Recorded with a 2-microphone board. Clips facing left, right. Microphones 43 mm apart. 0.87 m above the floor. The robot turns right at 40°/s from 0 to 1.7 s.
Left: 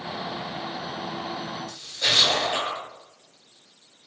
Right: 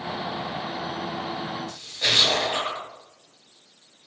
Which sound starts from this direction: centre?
A splash, at 1.7 s.